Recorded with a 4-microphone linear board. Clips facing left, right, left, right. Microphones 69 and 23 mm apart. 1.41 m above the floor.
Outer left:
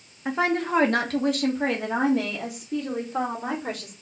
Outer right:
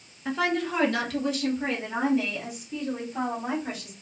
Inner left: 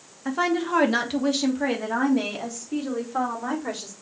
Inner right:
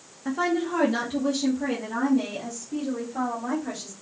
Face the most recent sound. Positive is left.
turn(degrees=75)  # may be behind; listen again after turning